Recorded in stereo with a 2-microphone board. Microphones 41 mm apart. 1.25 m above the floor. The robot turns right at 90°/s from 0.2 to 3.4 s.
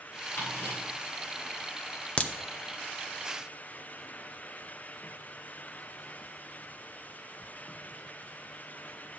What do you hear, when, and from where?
0.4 s ticking: 75° left (ahead or behind), 5 m; by 0.8 s 65° left (ahead or behind), 5 m
2.2 s a crack: 25° left (ahead or behind), 0.6 m; by 2.3 s 20° left (ahead or behind), 0.6 m